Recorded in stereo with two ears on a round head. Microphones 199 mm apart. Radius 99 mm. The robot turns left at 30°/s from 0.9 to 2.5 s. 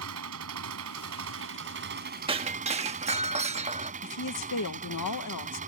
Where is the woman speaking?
90° left.